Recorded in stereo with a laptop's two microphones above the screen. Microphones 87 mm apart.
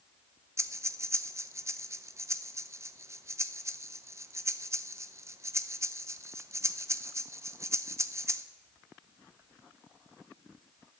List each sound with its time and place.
0.6 s breathing: 35° right (ahead or behind), 0.6 m